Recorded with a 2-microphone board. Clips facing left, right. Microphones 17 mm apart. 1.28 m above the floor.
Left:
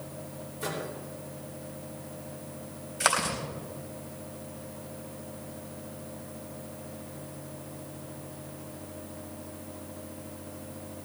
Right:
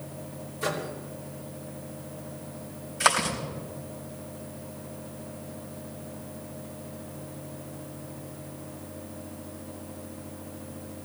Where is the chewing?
5° left (ahead or behind), 3.5 m.